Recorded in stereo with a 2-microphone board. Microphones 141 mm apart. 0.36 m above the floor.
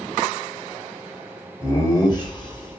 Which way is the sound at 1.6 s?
20° left (ahead or behind).